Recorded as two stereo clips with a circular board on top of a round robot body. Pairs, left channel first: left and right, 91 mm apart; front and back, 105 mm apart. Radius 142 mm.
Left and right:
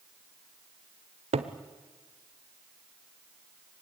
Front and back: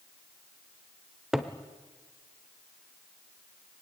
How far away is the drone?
No drone in this recording.